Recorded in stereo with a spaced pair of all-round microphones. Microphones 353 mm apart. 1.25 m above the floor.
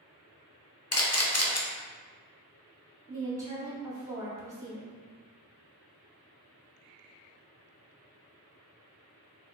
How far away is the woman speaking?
About 1.3 m.